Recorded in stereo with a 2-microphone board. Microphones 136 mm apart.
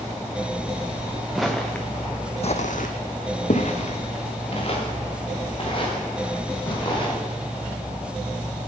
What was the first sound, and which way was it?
Footsteps, centre (ahead or behind).